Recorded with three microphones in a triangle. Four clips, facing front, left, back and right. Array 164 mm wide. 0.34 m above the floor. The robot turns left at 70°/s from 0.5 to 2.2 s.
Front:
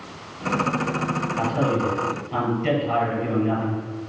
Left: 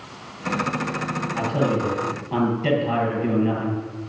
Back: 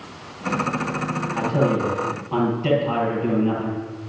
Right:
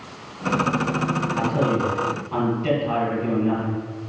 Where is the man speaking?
160° left, 8.5 m; by 3.8 s 100° left, 8.5 m.